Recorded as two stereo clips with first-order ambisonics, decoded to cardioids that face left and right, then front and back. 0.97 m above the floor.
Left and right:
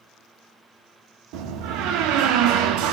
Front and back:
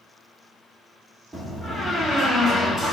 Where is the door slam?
90° right, 0.9 m.